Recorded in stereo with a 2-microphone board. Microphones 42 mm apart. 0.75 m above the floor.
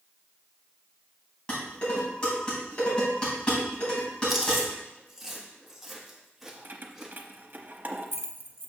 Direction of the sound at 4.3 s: 5° right (ahead or behind).